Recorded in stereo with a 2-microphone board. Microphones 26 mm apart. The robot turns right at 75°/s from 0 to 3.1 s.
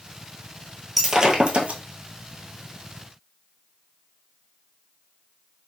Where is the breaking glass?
175° right, 1.1 m; by 1.8 s 110° right, 1.1 m.